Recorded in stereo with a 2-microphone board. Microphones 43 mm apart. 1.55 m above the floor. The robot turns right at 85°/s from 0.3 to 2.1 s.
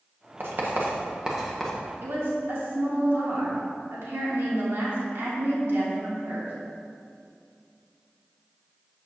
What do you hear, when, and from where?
0.4 s writing: 55° right (ahead or behind), 0.9 m; by 1.7 s 10° left (ahead or behind), 0.9 m
2.0 s a woman speaking: 80° right, 1.9 m